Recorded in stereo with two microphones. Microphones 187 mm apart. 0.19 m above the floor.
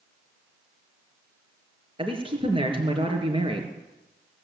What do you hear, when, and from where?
2.0 s a man speaking: 30° right (ahead or behind), 3.5 m